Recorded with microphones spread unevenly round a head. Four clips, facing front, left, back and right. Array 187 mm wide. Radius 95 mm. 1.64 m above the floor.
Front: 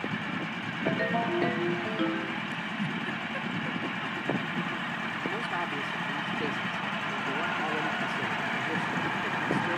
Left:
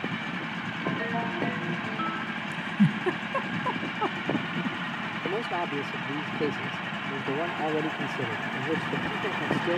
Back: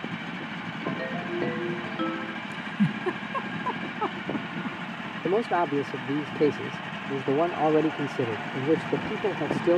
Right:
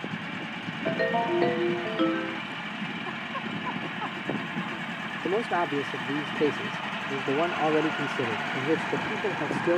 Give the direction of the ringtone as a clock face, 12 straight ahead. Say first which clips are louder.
Right 5 dB, front 4 dB; 3 o'clock.